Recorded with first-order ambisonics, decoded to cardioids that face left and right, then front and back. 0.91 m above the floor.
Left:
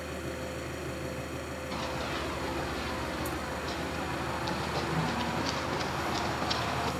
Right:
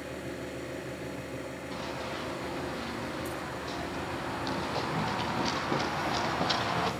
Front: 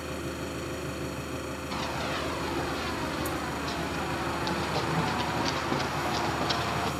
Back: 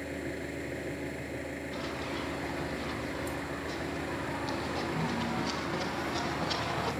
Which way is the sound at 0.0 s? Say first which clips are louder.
Left 1 dB, front 2 dB; 15° left.